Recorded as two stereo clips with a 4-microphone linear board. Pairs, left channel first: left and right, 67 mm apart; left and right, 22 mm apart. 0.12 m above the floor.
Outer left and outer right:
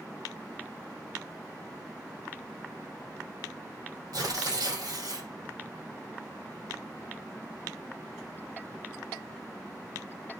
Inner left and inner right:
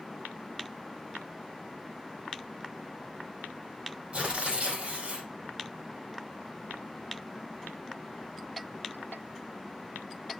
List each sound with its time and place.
4.1 s tearing paper: 60° right (ahead or behind), 4.5 m